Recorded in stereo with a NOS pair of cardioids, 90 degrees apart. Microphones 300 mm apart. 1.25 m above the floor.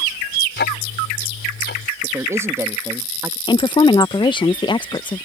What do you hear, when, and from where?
0.6 s ticking: 35° left
2.0 s a man speaking: 10° right
3.5 s a woman speaking: 15° left